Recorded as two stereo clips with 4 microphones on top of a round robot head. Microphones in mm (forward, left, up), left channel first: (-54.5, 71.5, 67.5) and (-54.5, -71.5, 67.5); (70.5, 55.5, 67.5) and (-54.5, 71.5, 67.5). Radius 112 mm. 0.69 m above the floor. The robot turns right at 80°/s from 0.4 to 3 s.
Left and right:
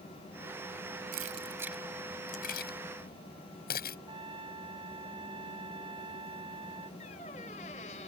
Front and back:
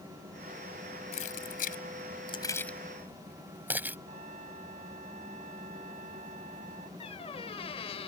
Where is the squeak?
35° left.